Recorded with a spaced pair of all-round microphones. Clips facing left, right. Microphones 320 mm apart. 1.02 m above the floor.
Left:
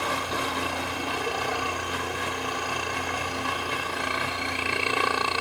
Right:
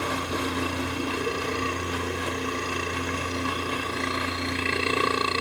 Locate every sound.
0.0 s a helicopter: 25° right (ahead or behind)